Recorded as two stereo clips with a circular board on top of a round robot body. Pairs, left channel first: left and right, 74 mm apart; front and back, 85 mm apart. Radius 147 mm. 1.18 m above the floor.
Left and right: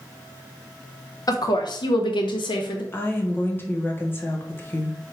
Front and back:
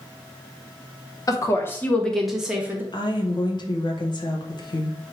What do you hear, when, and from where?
1.3 s a woman speaking: 50° left, 0.9 m; by 2.8 s 110° left, 0.9 m
2.9 s a woman speaking: 30° left, 1.2 m